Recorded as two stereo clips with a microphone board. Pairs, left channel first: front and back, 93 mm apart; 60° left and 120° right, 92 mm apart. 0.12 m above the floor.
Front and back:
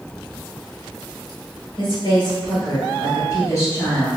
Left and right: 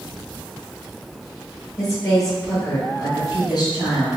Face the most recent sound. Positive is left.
turn(degrees=60)